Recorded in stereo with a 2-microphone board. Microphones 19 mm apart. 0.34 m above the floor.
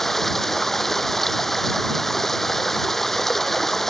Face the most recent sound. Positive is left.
turn(degrees=15)  # may be behind; listen again after turning